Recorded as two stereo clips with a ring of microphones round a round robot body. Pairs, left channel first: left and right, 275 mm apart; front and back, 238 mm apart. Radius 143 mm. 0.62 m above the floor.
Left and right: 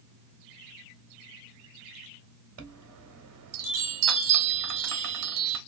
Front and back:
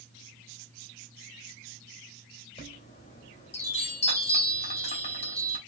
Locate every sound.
2.6 s a chime: 65° right, 1.2 m